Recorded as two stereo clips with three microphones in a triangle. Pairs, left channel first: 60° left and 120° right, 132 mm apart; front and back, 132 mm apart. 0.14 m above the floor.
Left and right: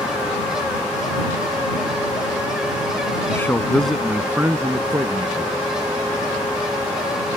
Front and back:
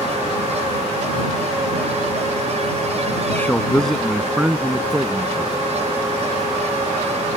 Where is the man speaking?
40° left; by 5.5 s 130° right.